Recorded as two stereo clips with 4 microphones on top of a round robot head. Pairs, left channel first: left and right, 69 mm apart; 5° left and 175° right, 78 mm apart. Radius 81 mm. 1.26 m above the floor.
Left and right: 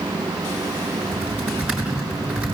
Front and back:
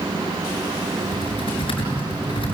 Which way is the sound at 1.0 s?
15° right.